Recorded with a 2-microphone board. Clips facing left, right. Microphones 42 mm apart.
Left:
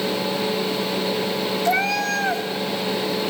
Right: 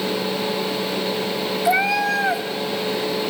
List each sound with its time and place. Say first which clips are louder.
1.6 s a cat meowing: right 3 dB; 15° right (ahead or behind), 0.9 m